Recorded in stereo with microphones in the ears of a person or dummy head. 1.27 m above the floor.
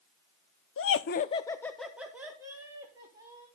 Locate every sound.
0.8 s laughter: 60° left (ahead or behind), 0.7 m; by 3.5 s 15° right (ahead or behind), 3 m